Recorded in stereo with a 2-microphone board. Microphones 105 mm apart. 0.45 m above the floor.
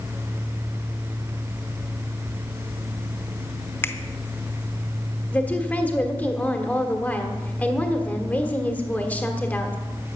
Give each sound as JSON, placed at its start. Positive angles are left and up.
{"t": 3.8, "sound": "a finger snap", "side_deg": 20, "distance_m": 0.8}
{"t": 5.3, "sound": "a woman speaking", "side_deg": 15, "distance_m": 1.4}